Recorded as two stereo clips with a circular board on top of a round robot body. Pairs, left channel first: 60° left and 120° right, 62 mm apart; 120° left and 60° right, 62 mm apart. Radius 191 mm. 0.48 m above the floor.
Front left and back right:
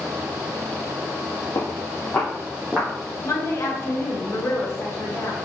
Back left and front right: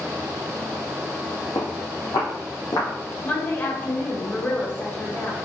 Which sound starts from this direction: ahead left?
A woman speaking, at 3.2 s.